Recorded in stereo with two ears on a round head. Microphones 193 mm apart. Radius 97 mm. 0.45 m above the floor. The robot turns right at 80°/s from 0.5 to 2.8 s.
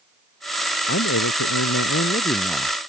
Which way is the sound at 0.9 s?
45° left.